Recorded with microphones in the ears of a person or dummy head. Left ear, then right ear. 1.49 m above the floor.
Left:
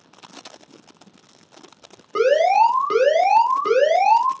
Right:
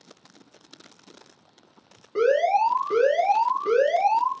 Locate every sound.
2.1 s an alarm: 50° left (ahead or behind), 1.0 m